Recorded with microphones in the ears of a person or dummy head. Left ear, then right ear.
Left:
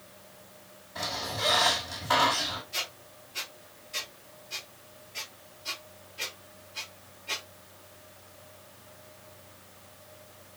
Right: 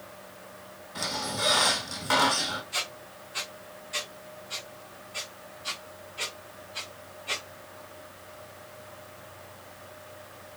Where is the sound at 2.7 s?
25° right (ahead or behind), 0.9 m.